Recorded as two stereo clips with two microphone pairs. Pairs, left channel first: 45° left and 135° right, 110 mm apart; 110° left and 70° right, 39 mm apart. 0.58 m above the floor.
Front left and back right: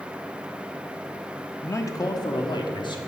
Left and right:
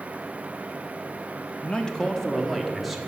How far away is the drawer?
I don't hear a drawer.